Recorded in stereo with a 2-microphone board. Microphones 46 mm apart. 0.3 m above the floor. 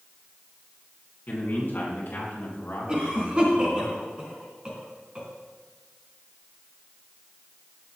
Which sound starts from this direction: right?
A cough, at 2.9 s.